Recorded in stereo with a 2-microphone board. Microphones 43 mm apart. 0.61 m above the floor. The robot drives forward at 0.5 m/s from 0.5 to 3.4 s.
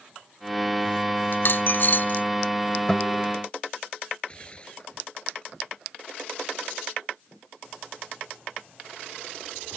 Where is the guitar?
20° left (ahead or behind); by 3.2 s 15° left (ahead or behind).